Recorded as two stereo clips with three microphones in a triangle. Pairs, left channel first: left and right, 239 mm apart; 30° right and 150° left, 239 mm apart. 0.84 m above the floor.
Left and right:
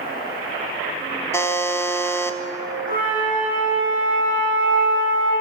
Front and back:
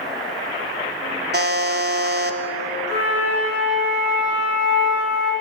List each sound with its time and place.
1.3 s a buzzer: 165° left, 0.9 m
2.9 s a flute: 145° left, 6.5 m